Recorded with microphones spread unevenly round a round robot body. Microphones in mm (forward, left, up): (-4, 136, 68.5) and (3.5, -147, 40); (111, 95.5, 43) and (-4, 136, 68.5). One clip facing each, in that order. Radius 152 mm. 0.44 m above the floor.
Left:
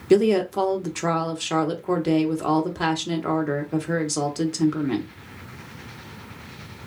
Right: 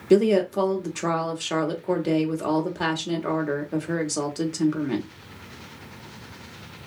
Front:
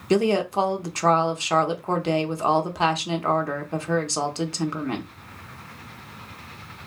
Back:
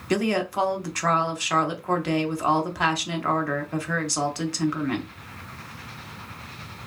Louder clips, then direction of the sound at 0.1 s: Left 1 dB, front 3 dB; straight ahead.